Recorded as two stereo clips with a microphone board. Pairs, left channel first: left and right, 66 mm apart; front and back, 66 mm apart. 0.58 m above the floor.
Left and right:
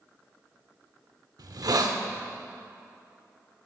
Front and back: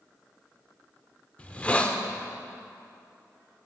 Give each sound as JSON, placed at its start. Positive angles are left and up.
{"t": 1.4, "sound": "a hiss", "azimuth_deg": -70, "distance_m": 0.5}